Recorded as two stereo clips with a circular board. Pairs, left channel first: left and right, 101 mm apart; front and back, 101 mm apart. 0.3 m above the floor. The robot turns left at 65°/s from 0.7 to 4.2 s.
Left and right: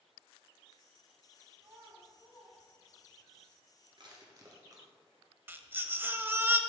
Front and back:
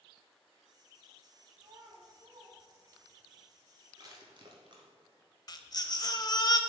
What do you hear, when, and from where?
1.6 s a child speaking: 145° right, 1.7 m; by 3.3 s 100° left, 1.7 m
4.0 s crushing: 130° right, 1.5 m; by 4.9 s 145° right, 1.5 m
5.5 s a baby crying: 30° right, 0.5 m